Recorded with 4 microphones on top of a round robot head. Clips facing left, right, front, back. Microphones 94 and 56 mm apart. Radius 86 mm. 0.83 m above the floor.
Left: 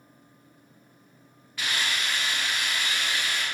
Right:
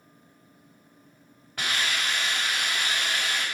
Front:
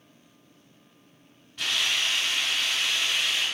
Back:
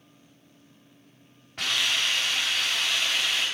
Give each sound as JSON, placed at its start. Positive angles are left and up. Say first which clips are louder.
{"t": 1.6, "sound": "a hiss", "louder": "right 1 dB, back 1 dB", "azimuth_deg": -125, "distance_m": 4.5}